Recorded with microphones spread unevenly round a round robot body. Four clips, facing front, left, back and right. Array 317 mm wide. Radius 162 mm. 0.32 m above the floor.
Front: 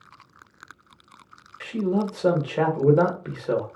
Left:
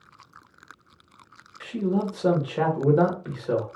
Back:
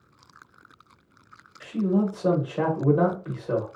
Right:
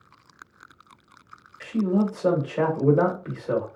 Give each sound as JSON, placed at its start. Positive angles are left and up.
{"t": 1.6, "sound": "a man speaking", "azimuth_deg": 20, "distance_m": 1.2}